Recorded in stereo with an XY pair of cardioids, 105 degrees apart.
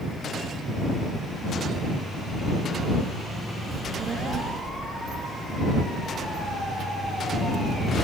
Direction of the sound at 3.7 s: 45° right.